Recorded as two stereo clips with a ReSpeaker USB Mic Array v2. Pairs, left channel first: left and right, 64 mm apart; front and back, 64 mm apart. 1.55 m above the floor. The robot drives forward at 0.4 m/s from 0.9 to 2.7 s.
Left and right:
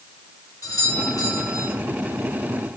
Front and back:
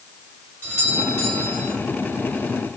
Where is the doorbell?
55° left, 8.5 m.